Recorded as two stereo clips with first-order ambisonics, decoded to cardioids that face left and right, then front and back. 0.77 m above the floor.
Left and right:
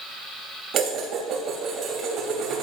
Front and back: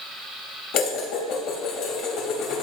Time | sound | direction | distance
0.7 | dishes clattering | 35° right | 3 m